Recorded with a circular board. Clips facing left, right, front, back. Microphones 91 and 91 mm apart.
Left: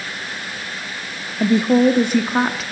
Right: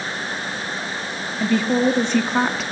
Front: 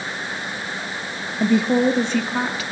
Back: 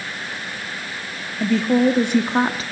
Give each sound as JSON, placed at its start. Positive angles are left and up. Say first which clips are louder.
{"t": 1.4, "sound": "a woman speaking", "louder": "left 4 dB, even", "azimuth_deg": 45, "distance_m": 0.7}